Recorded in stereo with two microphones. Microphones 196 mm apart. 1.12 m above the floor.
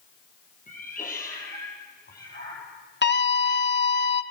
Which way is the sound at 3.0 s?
65° left (ahead or behind).